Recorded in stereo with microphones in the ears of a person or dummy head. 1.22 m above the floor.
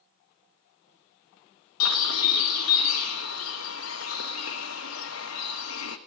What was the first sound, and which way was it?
A bird, 75° left (ahead or behind).